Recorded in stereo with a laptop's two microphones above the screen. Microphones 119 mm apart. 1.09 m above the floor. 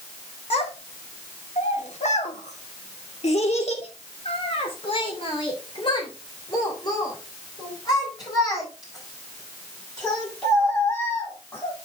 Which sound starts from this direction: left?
A child speaking, at 0.5 s.